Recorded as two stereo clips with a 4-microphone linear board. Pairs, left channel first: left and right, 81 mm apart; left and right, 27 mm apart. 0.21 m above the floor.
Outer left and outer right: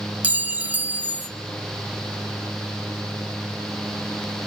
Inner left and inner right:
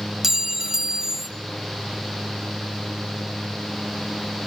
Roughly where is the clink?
Centre.